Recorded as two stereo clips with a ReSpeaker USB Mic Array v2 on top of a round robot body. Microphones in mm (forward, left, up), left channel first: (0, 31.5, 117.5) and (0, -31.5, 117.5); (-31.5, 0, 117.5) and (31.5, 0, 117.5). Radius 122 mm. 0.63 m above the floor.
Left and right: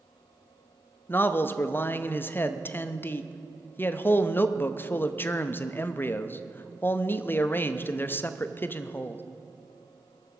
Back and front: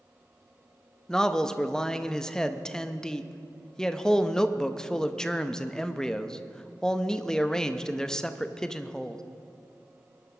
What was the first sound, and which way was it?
A man speaking, 105° left.